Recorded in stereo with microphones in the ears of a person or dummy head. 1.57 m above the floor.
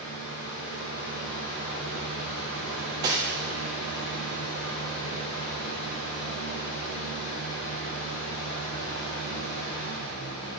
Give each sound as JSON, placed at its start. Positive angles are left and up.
{"t": 0.0, "sound": "a fan", "side_deg": 70, "distance_m": 1.9}
{"t": 2.7, "sound": "cutlery clinking", "side_deg": -20, "distance_m": 1.3}